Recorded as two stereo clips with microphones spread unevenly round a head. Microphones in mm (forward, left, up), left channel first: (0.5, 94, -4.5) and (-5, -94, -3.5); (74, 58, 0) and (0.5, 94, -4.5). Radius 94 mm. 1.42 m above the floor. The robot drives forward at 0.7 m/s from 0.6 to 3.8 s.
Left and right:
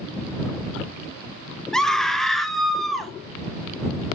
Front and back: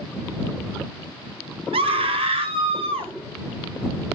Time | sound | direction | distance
1.7 | a scream | 175° left | 1.1 m